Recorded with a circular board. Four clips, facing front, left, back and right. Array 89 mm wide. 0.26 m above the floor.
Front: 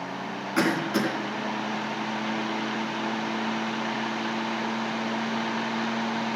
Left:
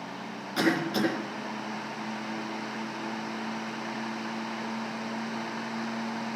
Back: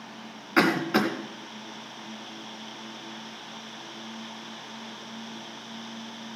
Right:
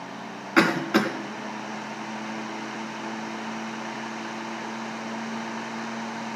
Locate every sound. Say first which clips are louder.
0.6 s a cough: right 5 dB, back 2 dB; 110° right, 2.0 m